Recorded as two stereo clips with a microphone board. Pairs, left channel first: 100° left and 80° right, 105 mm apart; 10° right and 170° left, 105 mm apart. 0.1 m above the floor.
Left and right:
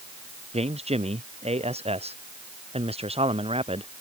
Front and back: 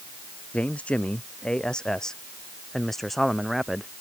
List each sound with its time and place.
0.5 s a man speaking: 90° right; by 3.9 s 100° right